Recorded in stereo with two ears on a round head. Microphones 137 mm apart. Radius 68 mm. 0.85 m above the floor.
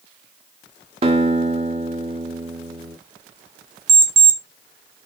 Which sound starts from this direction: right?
A guitar, at 1.0 s.